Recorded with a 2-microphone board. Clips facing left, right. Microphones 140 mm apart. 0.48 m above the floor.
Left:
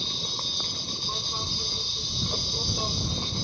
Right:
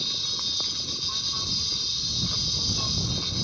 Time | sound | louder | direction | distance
0.0 | an insect | left 3 dB | 50° left (ahead or behind) | ?